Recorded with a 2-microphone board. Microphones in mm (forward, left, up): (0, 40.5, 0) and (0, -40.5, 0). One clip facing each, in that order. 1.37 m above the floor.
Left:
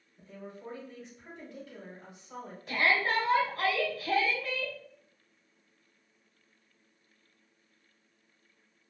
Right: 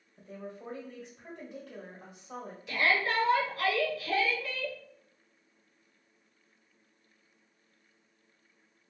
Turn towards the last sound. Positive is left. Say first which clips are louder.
# left 1 dB
turn(degrees=45)  # may be behind; listen again after turning